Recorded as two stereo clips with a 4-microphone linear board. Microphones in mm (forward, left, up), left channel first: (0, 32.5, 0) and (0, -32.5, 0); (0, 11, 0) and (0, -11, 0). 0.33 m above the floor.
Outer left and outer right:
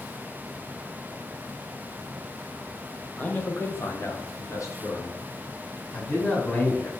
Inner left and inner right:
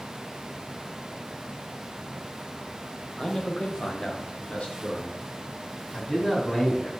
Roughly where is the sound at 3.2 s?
Centre.